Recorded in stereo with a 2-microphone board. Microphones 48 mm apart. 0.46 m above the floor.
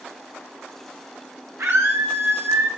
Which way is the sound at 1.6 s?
65° right (ahead or behind).